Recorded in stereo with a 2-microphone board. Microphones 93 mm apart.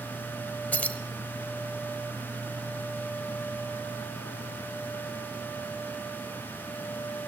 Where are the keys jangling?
20° left (ahead or behind), 1.2 m.